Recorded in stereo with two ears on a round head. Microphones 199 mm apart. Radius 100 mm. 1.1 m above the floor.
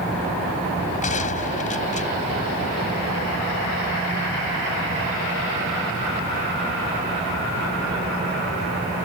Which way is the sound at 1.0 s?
35° left (ahead or behind).